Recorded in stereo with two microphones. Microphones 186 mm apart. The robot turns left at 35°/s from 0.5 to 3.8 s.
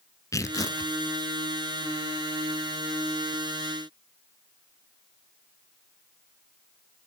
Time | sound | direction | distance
0.3 | tearing paper | 15° left (ahead or behind) | 0.6 m